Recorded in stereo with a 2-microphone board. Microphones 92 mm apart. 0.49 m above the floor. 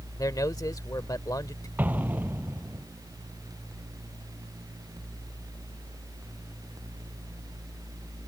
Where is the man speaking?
45° left (ahead or behind).